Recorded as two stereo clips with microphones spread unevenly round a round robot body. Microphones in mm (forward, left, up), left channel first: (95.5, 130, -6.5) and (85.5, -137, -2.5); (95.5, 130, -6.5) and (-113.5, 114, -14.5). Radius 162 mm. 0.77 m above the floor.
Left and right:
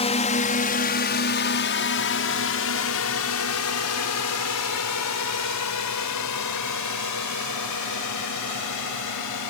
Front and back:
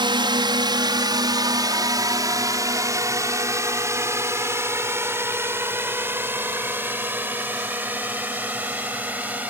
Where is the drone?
140° left; by 9.5 s 100° left.